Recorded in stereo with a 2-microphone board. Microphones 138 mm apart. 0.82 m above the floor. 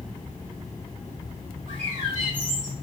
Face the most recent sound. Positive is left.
turn(degrees=-70)  # may be behind; listen again after turning